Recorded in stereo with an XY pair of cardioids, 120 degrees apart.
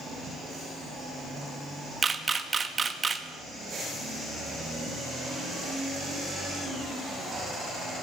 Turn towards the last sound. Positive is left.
turn(degrees=-25)